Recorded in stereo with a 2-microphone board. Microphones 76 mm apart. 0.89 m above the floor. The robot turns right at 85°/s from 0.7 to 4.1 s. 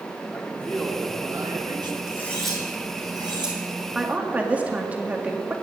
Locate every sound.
0.3 s a man speaking: 165° left, 1.9 m; by 2.0 s 90° right, 1.9 m
2.1 s cutlery clinking: 35° left (ahead or behind), 4 m; by 3.6 s 90° right, 4 m
4.0 s a woman speaking: 5° right (ahead or behind), 1.7 m; by 5.5 s 20° right (ahead or behind), 1.7 m